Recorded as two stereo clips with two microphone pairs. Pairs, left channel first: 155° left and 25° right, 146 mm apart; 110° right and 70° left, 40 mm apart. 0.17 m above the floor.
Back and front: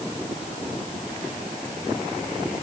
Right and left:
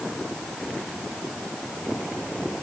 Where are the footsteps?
I don't hear footsteps.